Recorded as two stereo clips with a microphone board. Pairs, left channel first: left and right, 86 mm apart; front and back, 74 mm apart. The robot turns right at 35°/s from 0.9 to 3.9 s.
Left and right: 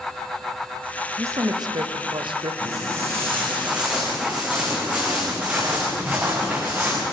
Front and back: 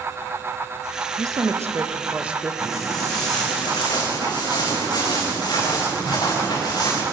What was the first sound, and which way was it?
A woman speaking, 145° right.